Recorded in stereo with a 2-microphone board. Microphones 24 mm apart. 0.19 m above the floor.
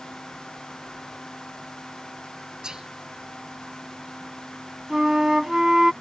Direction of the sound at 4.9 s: 25° right (ahead or behind).